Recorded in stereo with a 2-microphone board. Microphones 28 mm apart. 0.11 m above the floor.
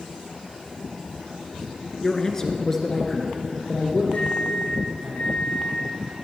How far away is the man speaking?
About 1.2 m.